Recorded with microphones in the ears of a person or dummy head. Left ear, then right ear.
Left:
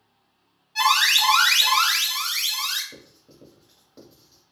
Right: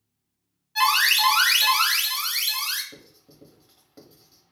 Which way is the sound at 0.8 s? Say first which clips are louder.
Left 1 dB; centre (ahead or behind).